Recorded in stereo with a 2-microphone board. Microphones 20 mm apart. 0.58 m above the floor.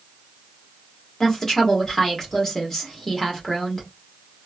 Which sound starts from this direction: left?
A woman speaking, at 1.2 s.